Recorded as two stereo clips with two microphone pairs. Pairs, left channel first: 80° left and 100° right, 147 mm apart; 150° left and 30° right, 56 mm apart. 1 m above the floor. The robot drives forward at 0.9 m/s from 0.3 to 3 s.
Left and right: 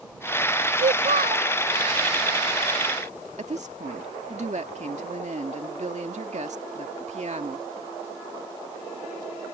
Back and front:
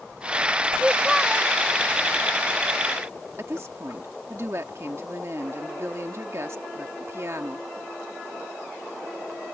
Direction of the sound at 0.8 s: 95° right.